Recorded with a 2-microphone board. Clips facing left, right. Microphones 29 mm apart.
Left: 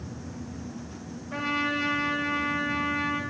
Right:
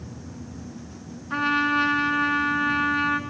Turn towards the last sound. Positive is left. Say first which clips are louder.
# right 6 dB
turn(degrees=-45)  # may be behind; listen again after turning